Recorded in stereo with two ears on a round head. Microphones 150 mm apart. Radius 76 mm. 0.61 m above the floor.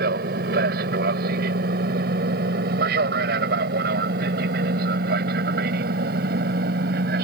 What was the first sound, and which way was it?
An aircraft, 60° right (ahead or behind).